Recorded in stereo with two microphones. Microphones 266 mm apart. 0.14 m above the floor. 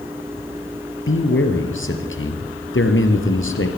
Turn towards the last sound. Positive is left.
turn(degrees=55)  # may be behind; listen again after turning